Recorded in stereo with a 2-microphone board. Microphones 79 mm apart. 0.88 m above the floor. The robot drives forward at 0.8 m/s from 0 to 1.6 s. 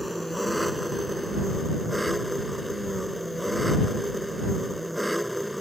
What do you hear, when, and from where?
0.0 s an engine running: centre (ahead or behind)